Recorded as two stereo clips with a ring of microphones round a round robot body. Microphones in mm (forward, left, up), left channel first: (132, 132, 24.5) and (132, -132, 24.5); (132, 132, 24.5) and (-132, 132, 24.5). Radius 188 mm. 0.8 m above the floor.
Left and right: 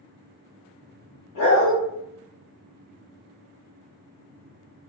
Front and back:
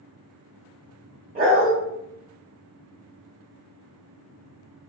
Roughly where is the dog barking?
Behind left.